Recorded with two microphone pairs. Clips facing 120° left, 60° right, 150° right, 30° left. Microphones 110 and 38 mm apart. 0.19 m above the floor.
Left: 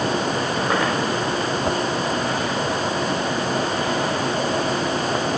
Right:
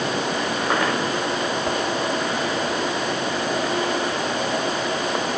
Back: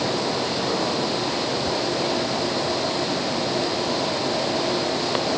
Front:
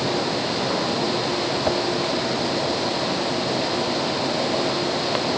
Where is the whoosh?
50° left.